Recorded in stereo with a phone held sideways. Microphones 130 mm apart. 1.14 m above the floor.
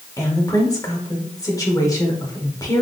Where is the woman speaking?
25° left (ahead or behind), 1.3 m.